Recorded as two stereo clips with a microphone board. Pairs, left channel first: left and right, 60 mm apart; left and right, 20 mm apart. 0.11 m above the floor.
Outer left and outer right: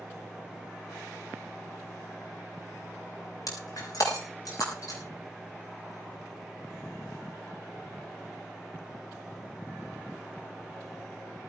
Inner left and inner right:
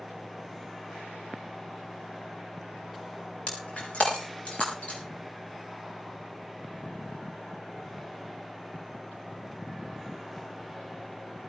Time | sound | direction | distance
3.5 | breaking glass | 85° left | 5.5 m